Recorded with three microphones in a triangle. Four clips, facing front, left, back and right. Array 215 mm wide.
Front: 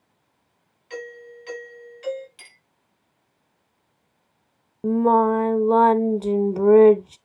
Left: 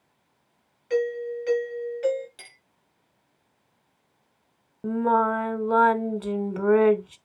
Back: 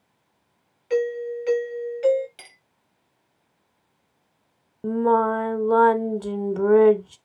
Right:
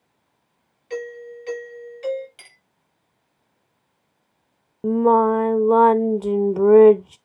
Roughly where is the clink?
Behind.